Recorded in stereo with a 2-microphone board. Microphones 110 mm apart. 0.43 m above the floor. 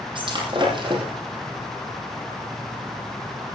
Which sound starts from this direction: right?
Breaking glass, at 0.1 s.